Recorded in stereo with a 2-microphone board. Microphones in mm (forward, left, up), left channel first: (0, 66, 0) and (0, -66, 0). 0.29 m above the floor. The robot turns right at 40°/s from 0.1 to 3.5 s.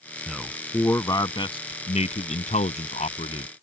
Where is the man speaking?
5° right (ahead or behind); by 3.5 s 50° left (ahead or behind).